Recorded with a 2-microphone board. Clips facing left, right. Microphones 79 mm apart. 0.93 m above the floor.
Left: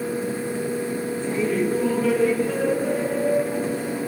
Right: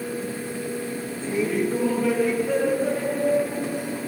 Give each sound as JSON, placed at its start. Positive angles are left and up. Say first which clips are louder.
{"t": 1.2, "sound": "laughter", "louder": "even", "side_deg": -10, "distance_m": 1.1}